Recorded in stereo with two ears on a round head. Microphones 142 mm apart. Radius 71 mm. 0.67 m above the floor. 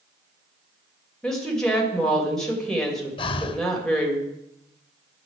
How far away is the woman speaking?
About 2.5 m.